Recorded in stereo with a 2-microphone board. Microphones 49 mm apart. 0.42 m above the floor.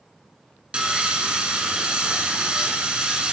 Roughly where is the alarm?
I don't hear an alarm.